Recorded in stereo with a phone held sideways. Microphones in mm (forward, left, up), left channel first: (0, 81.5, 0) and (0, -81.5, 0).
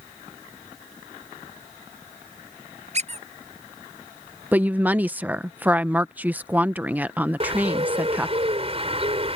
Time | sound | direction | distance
2.9 | a squeak | 40° right (ahead or behind) | ?
4.5 | a woman speaking | 10° right (ahead or behind) | ?
7.4 | a bird | 35° right (ahead or behind) | ?